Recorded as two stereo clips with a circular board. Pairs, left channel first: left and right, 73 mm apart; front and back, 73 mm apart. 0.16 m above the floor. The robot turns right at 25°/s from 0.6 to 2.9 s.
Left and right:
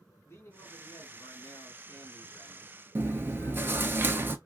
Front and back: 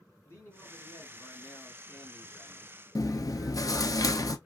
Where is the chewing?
30° right, 0.5 m.